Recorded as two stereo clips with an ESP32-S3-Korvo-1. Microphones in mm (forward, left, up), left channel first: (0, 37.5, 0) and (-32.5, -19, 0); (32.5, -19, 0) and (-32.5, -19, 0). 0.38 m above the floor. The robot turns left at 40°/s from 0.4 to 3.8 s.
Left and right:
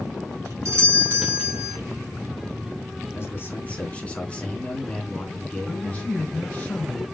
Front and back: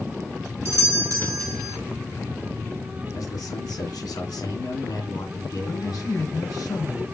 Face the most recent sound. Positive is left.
turn(degrees=0)